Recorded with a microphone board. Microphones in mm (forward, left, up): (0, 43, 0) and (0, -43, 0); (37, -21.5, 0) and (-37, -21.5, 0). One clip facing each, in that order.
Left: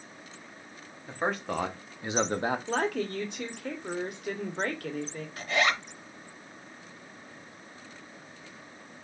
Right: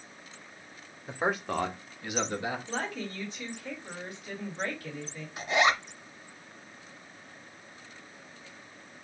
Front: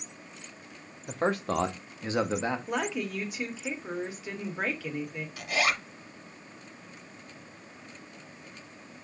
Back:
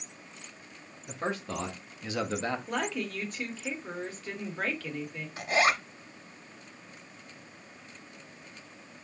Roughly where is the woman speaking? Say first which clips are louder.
Left 6 dB, front 1 dB; left.